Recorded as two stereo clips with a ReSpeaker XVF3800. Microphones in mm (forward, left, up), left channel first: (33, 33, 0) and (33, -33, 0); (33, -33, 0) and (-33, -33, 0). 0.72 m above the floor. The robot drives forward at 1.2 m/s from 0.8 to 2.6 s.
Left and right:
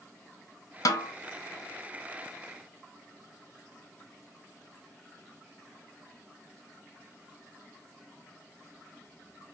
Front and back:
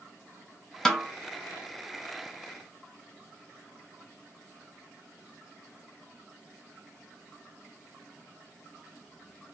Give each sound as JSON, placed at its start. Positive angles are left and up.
{"t": 0.8, "sound": "a snare drum", "azimuth_deg": 80, "distance_m": 0.9}